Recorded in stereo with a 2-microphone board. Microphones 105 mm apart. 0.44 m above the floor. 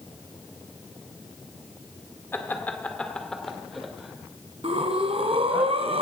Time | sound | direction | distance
2.3 | laughter | 20° left (ahead or behind) | 1.4 m
4.6 | breathing | 70° right (ahead or behind) | 1.5 m